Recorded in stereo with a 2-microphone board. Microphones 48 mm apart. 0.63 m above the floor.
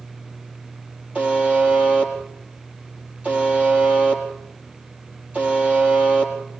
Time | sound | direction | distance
1.1 | a buzzer | 25° right (ahead or behind) | 4 m